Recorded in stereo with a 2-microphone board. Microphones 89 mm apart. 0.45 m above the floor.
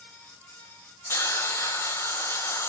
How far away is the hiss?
About 1.6 m.